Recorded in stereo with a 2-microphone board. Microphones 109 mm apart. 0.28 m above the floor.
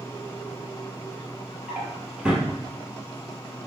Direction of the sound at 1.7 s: 10° right (ahead or behind).